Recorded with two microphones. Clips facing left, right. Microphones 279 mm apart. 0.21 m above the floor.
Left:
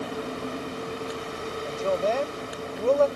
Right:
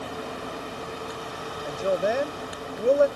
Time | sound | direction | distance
1.6 | a woman speaking | 15° right (ahead or behind) | ?